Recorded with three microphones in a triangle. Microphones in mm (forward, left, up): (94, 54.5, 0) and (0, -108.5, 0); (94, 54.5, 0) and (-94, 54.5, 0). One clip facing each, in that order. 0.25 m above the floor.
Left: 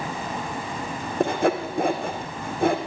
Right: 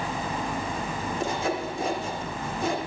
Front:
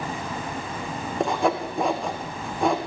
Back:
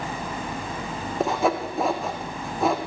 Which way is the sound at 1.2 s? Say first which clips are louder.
Left 8 dB, even; 90° left.